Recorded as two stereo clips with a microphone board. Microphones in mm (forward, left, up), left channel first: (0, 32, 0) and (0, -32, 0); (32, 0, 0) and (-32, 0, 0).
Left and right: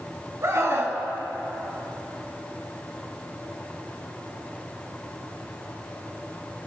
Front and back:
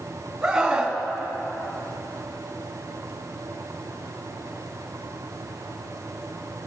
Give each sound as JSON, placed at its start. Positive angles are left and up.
{"t": 0.4, "sound": "a scream", "azimuth_deg": -100, "distance_m": 1.6}